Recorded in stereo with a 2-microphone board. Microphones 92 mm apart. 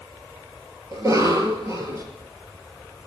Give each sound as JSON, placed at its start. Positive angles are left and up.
{"t": 0.9, "sound": "a cough", "side_deg": -35, "distance_m": 2.5}